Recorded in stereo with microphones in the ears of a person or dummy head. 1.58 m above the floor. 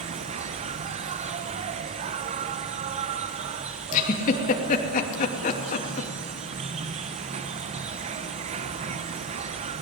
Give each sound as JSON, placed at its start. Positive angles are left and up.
{"t": 0.0, "sound": "an insect", "side_deg": -35, "distance_m": 1.1}
{"t": 3.9, "sound": "a giggle", "side_deg": 45, "distance_m": 3.0}